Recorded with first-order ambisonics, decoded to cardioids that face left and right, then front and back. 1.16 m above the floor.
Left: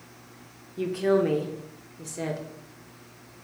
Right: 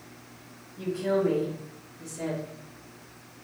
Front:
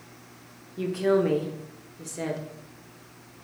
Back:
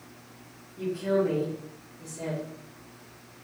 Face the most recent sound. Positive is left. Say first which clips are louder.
# left 3 dB, front 3 dB
turn(degrees=50)